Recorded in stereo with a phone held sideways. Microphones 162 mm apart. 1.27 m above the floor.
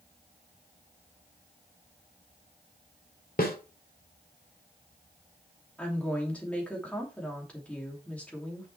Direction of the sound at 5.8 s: 10° left (ahead or behind).